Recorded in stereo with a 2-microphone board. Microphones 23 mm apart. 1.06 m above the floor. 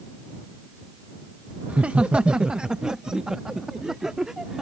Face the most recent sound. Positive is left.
turn(degrees=-25)  # may be behind; listen again after turning